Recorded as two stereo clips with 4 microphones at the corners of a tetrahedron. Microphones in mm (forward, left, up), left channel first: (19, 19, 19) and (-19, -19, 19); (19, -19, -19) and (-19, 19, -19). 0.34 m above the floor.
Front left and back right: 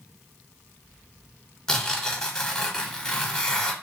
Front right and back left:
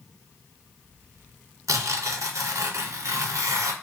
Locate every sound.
1.7 s tearing paper: 125° left, 0.7 m